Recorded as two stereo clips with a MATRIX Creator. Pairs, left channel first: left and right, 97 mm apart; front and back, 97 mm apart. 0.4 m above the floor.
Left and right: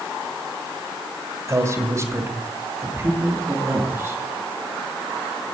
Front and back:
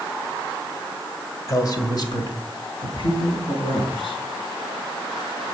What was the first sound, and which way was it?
A man speaking, 45° right.